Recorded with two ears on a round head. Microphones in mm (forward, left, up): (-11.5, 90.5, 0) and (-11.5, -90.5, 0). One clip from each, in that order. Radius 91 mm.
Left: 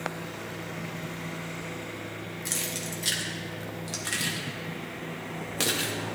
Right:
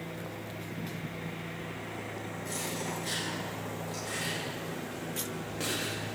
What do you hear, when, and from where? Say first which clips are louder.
2.5 s keys jangling: left 3 dB; 65° left (ahead or behind), 1.6 m